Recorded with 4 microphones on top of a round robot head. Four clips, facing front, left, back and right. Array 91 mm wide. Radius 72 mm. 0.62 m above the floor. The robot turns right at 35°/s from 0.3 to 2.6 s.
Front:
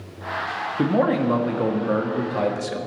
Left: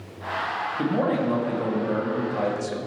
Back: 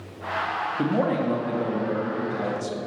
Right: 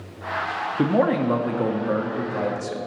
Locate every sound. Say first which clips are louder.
0.8 s a man speaking: right 4 dB, front 5 dB; 65° right, 1.2 m; by 2.8 s straight ahead, 1.2 m